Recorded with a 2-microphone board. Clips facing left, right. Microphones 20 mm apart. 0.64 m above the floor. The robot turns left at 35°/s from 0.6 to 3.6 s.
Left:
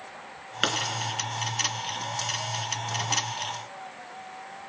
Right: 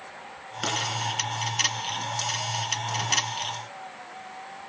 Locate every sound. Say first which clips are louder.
0.6 s a pop: left 3 dB; 30° left (ahead or behind), 3 m; by 0.8 s 35° left (ahead or behind), 3 m